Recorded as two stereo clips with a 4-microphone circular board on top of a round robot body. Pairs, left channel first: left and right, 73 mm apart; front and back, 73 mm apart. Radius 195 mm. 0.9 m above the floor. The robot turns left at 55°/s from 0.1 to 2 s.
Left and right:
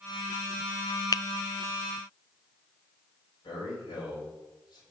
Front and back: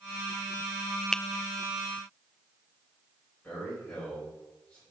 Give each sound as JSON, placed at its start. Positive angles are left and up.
{"t": 1.1, "sound": "a finger snap", "azimuth_deg": 80, "distance_m": 0.5}
{"t": 3.4, "sound": "a man speaking", "azimuth_deg": 70, "distance_m": 5.5}